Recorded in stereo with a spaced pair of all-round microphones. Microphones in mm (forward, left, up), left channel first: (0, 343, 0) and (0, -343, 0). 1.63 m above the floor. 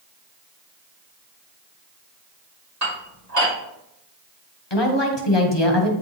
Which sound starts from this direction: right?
Dishes clattering, at 2.8 s.